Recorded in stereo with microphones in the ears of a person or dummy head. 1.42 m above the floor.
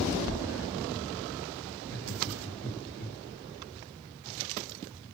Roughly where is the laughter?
Left.